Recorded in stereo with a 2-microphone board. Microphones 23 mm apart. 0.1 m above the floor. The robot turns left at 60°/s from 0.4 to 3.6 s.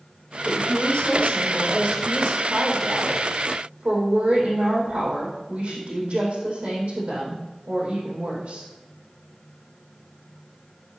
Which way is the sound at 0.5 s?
110° left.